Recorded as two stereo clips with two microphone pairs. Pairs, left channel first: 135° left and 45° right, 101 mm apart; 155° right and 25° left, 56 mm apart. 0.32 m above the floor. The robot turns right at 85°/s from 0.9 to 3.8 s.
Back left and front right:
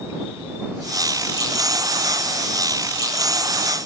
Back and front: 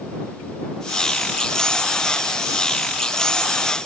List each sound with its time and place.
Only background noise.